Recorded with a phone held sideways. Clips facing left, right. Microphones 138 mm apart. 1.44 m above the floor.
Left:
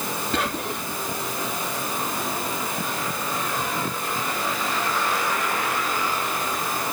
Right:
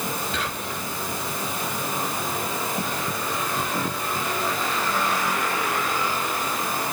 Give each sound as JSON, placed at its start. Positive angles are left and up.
{"t": 0.3, "sound": "whispering", "side_deg": 55, "distance_m": 2.5}